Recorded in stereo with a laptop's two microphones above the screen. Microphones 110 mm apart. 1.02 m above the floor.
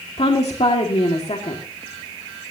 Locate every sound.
0.2 s a woman speaking: 70° left (ahead or behind), 2 m